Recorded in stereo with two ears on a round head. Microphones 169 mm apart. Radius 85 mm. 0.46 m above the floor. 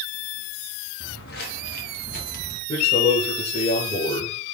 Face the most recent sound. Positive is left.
turn(degrees=30)  # may be behind; listen again after turning